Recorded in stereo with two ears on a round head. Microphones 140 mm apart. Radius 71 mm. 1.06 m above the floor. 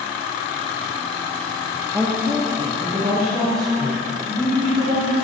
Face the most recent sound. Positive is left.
turn(degrees=-45)  # may be behind; listen again after turning